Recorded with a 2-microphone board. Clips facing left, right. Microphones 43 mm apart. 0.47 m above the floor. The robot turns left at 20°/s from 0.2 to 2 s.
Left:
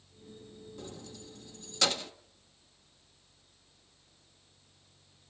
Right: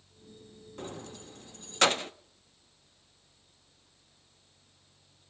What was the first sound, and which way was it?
Keys jangling, 45° right (ahead or behind).